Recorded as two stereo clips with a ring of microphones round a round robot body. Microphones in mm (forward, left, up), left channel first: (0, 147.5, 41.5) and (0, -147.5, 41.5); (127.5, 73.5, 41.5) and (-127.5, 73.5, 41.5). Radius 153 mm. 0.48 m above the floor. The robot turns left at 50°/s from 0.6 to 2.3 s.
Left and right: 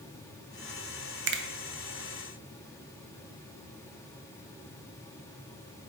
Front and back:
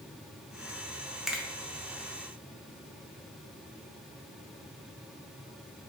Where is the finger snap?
90° right, 0.5 m; by 1.4 s 100° right, 0.5 m.